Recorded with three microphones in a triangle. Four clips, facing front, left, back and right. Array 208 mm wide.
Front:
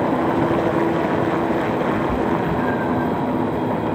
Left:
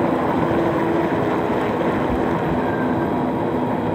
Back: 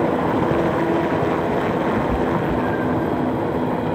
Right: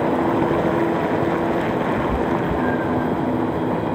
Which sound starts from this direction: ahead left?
A cat meowing, at 1.9 s.